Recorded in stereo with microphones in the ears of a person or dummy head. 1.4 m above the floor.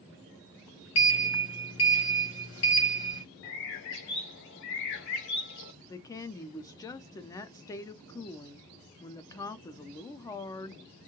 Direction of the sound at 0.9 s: 75° left (ahead or behind).